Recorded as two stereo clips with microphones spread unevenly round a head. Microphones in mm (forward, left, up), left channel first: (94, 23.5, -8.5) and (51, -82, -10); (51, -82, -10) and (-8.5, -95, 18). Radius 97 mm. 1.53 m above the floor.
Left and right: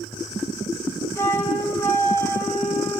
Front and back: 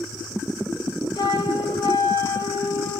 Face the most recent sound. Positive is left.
turn(degrees=0)